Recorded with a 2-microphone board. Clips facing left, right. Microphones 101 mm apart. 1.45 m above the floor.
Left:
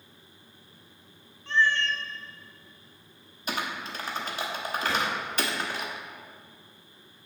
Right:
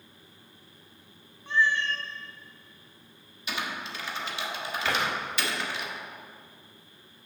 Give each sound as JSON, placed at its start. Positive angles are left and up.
{"t": 1.5, "sound": "a cat meowing", "side_deg": -10, "distance_m": 0.6}
{"t": 3.5, "sound": "typing on a keyboard", "side_deg": 45, "distance_m": 1.1}
{"t": 4.8, "sound": "a drawer", "side_deg": -70, "distance_m": 3.0}